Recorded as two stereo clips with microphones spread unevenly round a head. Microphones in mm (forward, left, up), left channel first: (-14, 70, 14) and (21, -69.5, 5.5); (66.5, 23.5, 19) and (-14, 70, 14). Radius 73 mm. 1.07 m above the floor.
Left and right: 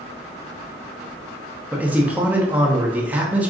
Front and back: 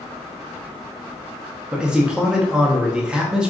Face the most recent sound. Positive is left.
turn(degrees=-145)